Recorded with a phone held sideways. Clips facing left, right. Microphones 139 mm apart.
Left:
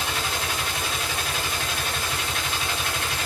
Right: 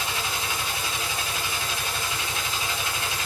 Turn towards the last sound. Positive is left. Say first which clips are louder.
# left 2 dB
turn(degrees=70)  # may be behind; listen again after turning